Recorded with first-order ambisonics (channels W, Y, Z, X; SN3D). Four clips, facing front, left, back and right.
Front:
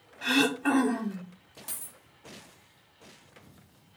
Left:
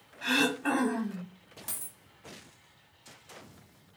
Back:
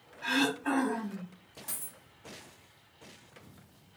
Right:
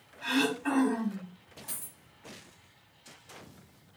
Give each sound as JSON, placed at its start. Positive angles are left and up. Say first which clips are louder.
{"t": 0.2, "sound": "throat clearing", "louder": "left 1 dB, front 4 dB", "azimuth_deg": 25, "distance_m": 0.7}
{"t": 1.7, "sound": "a dropped coin", "louder": "left 2 dB, front 1 dB", "azimuth_deg": 65, "distance_m": 1.2}